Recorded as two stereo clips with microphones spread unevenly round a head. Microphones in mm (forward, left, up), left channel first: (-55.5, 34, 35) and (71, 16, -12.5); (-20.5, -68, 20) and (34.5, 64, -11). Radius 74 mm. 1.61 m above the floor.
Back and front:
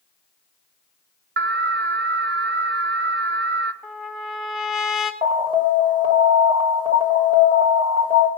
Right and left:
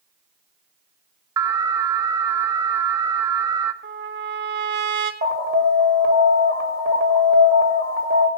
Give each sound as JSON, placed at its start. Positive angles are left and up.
{"t": 1.4, "sound": "an alarm", "azimuth_deg": -5, "distance_m": 1.0}
{"t": 3.8, "sound": "a trumpet", "azimuth_deg": 90, "distance_m": 1.9}
{"t": 5.2, "sound": "an alarm", "azimuth_deg": 45, "distance_m": 3.5}